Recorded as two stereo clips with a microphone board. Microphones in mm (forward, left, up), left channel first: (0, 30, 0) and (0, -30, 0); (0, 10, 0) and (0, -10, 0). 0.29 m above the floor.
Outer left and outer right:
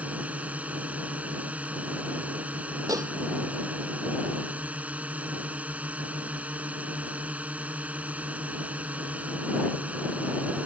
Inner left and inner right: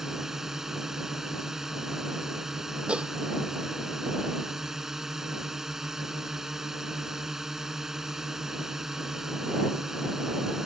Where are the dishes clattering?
75° right (ahead or behind).